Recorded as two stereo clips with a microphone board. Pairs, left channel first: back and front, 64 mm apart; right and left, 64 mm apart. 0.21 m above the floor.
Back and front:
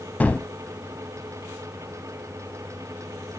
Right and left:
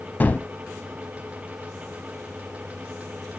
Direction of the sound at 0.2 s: 130° right.